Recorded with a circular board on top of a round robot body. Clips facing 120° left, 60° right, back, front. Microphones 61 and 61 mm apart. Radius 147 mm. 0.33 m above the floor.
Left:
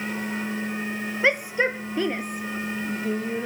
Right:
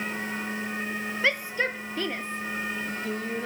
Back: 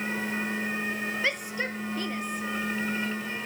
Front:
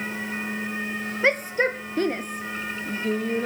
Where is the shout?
50° left; by 3.5 s 35° left.